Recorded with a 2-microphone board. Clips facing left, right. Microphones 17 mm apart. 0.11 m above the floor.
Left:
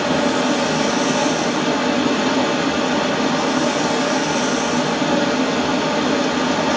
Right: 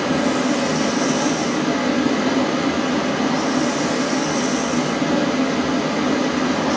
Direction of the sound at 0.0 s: 35° left (ahead or behind).